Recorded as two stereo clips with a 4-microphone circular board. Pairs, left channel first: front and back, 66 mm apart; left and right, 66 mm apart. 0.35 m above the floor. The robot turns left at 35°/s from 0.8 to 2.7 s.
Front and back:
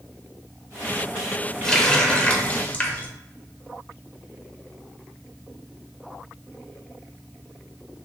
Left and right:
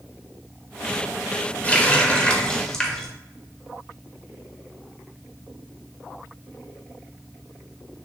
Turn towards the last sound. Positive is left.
turn(degrees=30)